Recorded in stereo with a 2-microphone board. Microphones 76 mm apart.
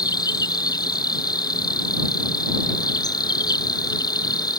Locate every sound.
0.0 s an insect: 60° left (ahead or behind)